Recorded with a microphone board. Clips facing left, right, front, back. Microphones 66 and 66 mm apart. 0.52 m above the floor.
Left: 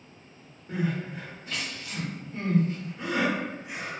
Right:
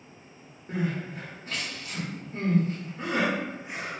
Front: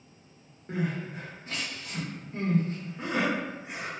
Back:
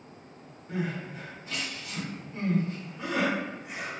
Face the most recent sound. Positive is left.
turn(degrees=-50)